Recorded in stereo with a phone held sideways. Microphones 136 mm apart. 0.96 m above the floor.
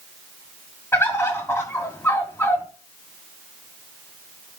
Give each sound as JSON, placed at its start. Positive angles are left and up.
{"t": 0.9, "sound": "a bird", "side_deg": 15, "distance_m": 1.6}